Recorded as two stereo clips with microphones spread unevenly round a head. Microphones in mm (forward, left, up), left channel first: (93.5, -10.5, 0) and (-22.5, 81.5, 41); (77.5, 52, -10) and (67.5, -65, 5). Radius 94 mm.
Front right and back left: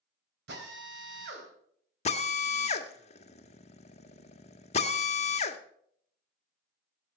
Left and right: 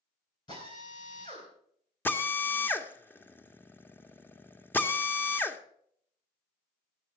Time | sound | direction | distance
0.5 | a drill | 155° left | 3.5 m
2.0 | a drill | 10° left | 1.2 m